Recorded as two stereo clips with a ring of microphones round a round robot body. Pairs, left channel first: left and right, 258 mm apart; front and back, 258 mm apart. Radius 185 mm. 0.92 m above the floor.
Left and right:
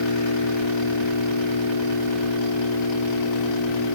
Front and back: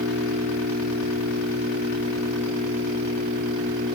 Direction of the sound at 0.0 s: 115° left.